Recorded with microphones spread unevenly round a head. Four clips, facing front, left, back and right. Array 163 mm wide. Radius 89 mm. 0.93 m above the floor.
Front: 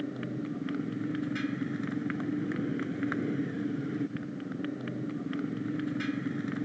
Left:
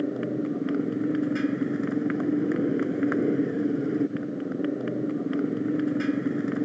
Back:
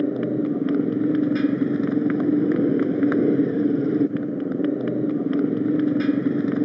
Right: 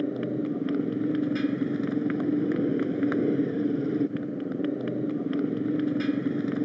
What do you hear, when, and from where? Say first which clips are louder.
0.0 s a motorcycle: left 1 dB, back 13 dB; 175° left